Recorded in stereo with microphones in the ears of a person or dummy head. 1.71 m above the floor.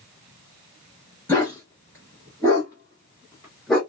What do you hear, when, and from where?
1.3 s a dog barking: 10° left (ahead or behind), 1.4 m